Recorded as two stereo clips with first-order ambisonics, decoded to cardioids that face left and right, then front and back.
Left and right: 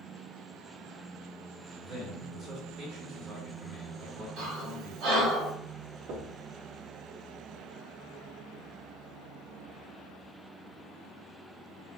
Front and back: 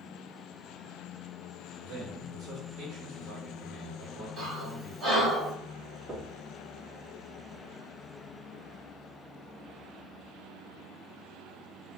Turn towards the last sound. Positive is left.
turn(degrees=-115)